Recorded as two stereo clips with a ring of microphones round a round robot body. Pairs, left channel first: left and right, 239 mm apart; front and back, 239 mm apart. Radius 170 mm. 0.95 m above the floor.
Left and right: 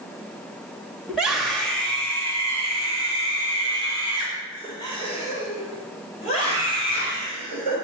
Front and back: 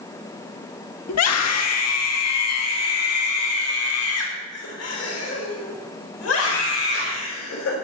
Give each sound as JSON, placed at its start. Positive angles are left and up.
{"t": 1.1, "sound": "a scream", "azimuth_deg": -5, "distance_m": 1.4}